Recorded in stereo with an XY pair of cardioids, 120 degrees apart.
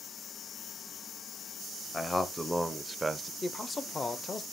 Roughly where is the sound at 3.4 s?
Ahead left.